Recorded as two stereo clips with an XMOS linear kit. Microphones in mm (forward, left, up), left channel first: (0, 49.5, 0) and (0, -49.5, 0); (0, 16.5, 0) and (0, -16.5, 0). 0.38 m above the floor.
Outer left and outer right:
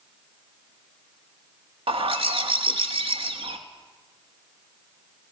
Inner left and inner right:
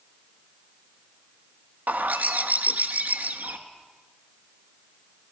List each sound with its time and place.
1.9 s a bird: 70° right (ahead or behind), 0.9 m